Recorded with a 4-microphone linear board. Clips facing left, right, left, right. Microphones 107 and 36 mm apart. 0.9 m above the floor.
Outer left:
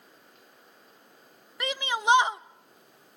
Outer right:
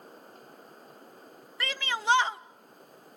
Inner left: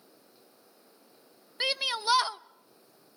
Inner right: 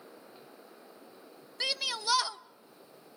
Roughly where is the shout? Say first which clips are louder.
Outer left 4 dB, inner left 4 dB; centre.